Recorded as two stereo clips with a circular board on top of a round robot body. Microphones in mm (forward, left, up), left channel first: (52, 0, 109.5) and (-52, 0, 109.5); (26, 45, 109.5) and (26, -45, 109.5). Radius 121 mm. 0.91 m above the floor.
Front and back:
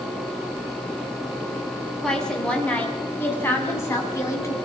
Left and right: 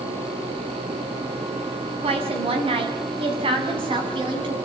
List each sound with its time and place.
2.0 s a woman speaking: 85° right, 7 m; by 4.5 s 60° right, 7 m